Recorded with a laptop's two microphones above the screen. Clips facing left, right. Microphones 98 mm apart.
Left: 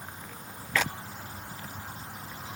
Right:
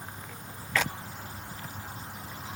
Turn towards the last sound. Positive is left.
No sound to turn to.